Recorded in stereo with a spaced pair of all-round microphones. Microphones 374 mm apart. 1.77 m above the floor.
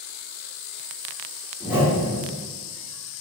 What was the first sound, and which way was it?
A whoosh, 5° right (ahead or behind).